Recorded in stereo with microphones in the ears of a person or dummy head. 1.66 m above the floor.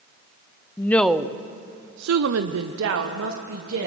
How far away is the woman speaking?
About 0.7 m.